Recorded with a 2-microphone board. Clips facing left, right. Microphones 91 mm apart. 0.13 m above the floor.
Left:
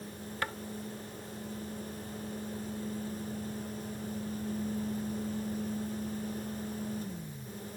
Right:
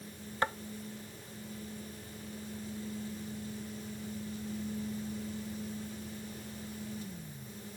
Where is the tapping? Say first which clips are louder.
Right 4 dB; 25° right (ahead or behind), 0.5 m.